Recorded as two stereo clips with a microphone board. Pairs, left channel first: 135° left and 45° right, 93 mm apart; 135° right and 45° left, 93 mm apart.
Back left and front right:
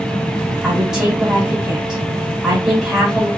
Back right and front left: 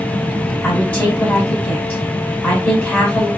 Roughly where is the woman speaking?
Right.